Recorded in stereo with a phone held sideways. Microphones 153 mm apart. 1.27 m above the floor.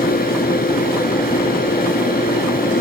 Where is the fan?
80° left.